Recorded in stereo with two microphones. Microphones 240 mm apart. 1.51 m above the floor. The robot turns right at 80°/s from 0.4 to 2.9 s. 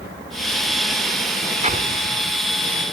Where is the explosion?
150° right; by 2.4 s 90° right.